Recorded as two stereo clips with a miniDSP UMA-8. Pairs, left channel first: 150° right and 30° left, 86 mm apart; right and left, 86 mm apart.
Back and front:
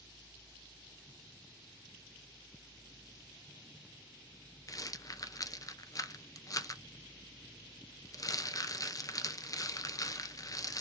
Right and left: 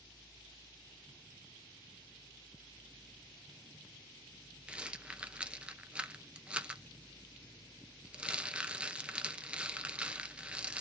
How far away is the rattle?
About 0.7 m.